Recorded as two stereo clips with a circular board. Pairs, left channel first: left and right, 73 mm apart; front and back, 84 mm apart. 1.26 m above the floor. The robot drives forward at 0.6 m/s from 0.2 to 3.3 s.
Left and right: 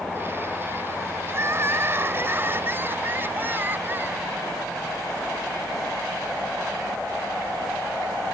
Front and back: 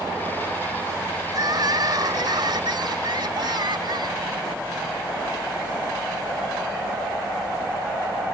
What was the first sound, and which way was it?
Crying, 145° right.